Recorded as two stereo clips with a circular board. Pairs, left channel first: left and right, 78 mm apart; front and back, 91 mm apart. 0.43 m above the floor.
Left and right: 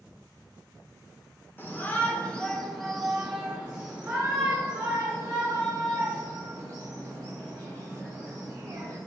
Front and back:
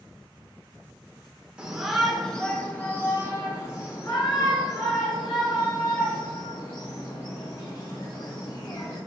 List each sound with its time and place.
1.6 s a shout: 110° left, 1.4 m; by 9.0 s 35° right, 4.5 m